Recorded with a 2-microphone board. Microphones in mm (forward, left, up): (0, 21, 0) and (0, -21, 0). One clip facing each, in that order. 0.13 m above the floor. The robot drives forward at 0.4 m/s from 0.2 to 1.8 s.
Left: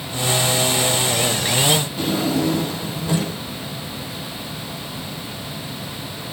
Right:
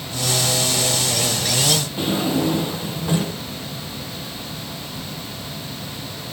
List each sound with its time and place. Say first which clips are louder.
2.0 s a drawer: even; 45° right (ahead or behind), 3 m